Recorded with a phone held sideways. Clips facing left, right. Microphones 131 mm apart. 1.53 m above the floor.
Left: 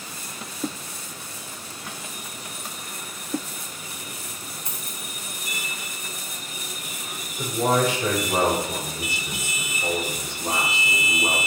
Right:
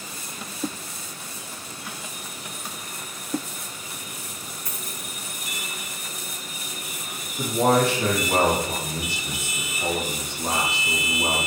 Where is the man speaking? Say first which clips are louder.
Right 2 dB; 65° right (ahead or behind), 3.5 m.